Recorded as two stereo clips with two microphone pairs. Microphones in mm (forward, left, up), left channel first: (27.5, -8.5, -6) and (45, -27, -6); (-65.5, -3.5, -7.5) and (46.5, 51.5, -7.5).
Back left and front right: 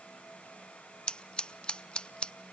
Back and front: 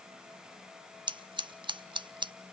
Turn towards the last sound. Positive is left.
turn(degrees=75)